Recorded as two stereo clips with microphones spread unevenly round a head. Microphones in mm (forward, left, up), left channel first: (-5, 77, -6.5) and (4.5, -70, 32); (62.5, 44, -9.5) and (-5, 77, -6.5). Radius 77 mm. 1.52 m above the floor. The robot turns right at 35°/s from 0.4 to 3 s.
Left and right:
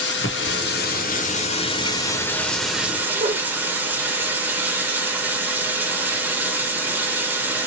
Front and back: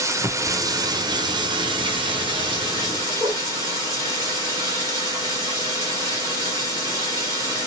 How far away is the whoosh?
About 1.1 m.